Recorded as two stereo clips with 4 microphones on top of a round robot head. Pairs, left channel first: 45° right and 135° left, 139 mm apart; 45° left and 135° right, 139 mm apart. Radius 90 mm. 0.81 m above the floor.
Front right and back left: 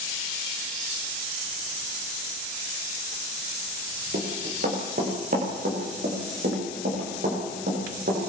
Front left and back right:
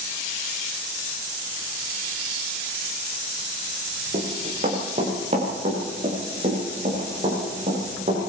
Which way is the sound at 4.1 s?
175° left.